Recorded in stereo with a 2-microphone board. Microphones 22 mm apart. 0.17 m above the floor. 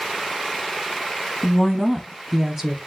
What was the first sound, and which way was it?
A woman speaking, 30° left (ahead or behind).